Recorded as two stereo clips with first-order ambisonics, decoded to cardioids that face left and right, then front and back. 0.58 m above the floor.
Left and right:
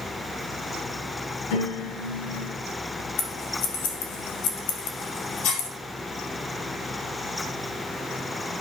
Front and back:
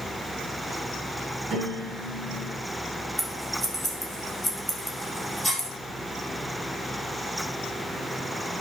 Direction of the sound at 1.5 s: 110° left.